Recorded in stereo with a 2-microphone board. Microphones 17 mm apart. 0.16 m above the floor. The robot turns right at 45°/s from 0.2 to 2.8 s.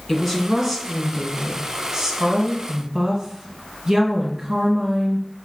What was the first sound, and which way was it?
A woman speaking, 160° left.